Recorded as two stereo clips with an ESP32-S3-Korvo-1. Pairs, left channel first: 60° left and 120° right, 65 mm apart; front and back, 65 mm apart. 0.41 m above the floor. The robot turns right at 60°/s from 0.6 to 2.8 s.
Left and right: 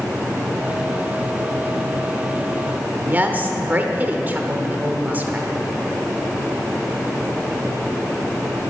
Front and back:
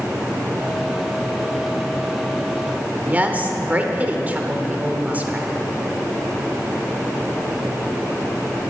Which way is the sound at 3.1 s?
145° right.